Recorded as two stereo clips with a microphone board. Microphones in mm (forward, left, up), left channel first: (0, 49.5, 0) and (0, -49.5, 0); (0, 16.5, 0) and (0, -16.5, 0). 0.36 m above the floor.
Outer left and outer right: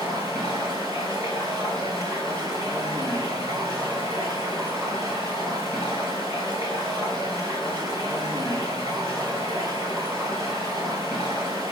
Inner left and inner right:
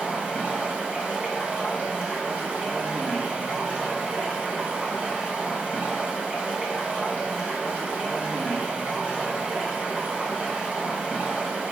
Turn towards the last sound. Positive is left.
turn(degrees=-45)  # may be behind; listen again after turning